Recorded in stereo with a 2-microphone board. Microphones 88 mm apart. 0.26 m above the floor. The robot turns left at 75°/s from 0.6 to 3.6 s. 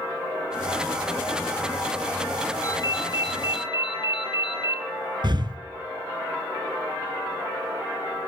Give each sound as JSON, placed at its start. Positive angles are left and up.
{"t": 2.6, "sound": "a ringtone", "azimuth_deg": 140, "distance_m": 2.0}
{"t": 5.2, "sound": "breathing", "side_deg": -60, "distance_m": 0.7}